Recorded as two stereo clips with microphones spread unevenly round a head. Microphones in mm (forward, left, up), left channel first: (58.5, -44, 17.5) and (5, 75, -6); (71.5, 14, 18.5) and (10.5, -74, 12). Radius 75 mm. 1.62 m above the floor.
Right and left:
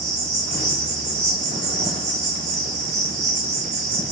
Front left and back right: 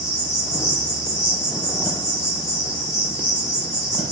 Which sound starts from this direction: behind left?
An insect, at 0.0 s.